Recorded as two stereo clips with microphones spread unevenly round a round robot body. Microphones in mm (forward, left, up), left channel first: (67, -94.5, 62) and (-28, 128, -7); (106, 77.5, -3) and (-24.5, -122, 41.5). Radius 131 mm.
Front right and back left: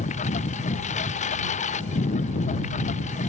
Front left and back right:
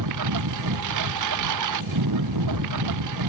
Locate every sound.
0.0 s a lawn mower: 130° right